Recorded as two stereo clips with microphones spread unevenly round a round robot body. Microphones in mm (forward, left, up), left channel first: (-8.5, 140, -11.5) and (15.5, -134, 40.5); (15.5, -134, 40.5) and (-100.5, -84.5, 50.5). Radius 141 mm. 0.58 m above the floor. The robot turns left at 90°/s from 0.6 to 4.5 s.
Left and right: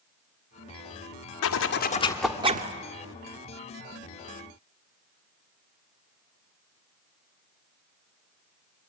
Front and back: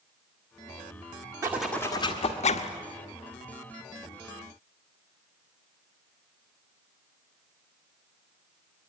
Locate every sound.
1.4 s a zipper: 85° left, 1.2 m; by 2.7 s 30° right, 1.2 m